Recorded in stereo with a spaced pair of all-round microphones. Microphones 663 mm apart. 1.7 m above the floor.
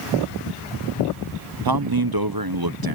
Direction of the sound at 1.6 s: 35° right (ahead or behind).